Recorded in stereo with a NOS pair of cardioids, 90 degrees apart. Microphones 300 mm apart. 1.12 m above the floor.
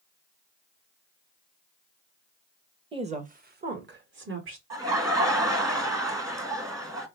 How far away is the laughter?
About 1.4 m.